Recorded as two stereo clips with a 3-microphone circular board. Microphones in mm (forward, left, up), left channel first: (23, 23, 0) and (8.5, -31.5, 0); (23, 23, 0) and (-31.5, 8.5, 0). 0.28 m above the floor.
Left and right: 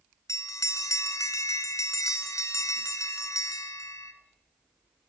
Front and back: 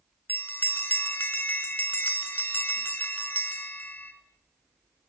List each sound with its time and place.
0.3 s a bell: 70° left, 1.4 m